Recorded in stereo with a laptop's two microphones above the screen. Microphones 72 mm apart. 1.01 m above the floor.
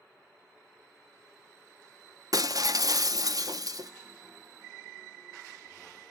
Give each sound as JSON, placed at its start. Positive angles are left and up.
{"t": 2.3, "sound": "breaking glass", "side_deg": -55, "distance_m": 0.6}